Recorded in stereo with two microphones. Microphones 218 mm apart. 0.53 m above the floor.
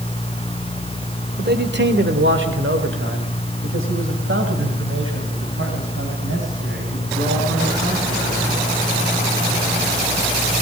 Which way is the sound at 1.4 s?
45° right (ahead or behind).